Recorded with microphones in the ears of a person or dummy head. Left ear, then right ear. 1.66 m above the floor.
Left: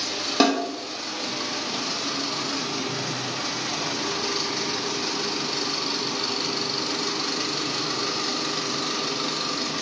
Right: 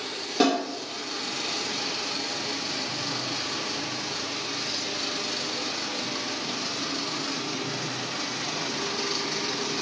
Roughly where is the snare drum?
Left.